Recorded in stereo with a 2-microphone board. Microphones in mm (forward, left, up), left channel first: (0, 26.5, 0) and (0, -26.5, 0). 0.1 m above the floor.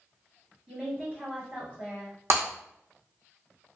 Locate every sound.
0.7 s a woman speaking: 25° right (ahead or behind), 1.9 m
2.3 s breaking glass: 55° right (ahead or behind), 1.7 m